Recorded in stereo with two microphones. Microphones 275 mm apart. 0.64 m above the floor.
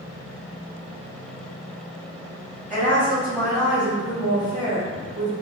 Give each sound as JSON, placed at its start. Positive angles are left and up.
{"t": 2.7, "sound": "a woman speaking", "side_deg": -25, "distance_m": 1.3}